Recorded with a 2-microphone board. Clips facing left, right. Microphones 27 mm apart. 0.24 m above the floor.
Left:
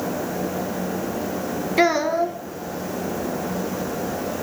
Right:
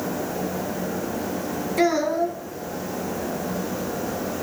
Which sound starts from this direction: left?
A child speaking, at 1.8 s.